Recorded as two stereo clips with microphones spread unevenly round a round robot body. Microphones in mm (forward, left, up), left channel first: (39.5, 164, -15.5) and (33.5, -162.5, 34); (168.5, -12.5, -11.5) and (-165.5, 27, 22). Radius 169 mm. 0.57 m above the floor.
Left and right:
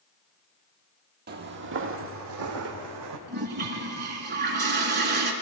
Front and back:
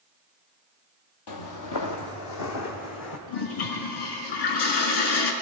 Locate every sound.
1.3 s footsteps: 35° right, 1.2 m; by 3.2 s 55° right, 2 m
3.3 s a toilet flushing: 30° right, 1.9 m